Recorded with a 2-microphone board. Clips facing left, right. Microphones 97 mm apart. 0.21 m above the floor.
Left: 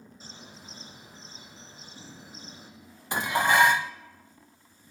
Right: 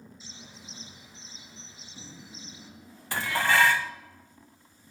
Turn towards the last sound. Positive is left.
turn(degrees=20)  # may be behind; listen again after turning